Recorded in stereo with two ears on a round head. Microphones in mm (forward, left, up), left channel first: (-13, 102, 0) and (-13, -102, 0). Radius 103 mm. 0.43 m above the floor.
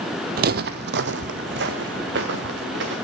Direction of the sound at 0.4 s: 40° right (ahead or behind).